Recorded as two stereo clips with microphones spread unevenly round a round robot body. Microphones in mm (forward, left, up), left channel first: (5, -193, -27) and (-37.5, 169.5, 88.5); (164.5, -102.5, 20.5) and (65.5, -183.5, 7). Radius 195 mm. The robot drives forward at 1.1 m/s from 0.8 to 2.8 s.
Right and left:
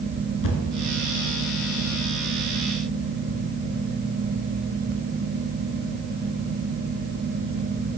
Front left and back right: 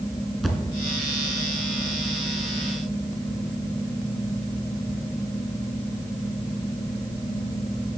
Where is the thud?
50° right, 2.5 m.